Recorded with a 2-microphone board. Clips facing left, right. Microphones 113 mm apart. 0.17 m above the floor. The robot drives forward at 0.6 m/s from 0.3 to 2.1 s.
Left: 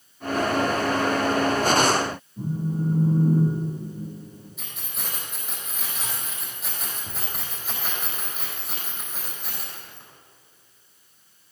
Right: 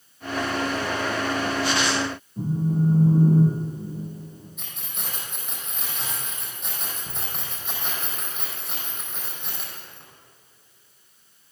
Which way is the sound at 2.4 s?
30° right (ahead or behind).